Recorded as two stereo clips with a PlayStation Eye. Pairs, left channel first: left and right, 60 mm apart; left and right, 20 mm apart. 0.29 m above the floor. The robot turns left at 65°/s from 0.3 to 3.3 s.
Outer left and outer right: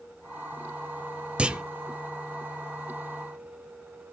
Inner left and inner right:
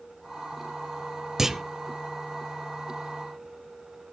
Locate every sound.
1.4 s a clunk: 20° right (ahead or behind), 0.6 m; by 1.6 s 10° right (ahead or behind), 0.6 m